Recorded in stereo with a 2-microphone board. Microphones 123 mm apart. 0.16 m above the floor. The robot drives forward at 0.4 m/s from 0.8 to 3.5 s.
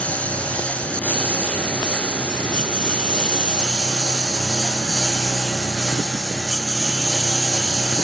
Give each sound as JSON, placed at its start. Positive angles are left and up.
{"t": 0.0, "sound": "a lawn mower", "side_deg": 10}